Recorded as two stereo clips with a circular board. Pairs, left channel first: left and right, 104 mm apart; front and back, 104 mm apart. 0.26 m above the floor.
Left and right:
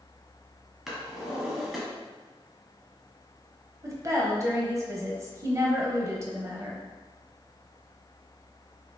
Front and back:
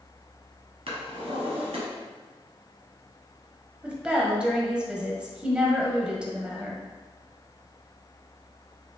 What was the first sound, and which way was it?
A drawer, straight behind.